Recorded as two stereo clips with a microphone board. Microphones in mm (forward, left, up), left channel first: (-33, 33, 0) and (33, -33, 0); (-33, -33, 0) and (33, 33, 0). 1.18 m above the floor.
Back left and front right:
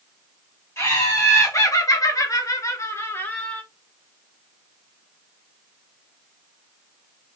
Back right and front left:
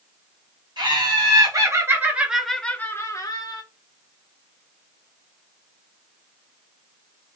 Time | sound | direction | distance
0.8 | laughter | 75° left | 1.4 m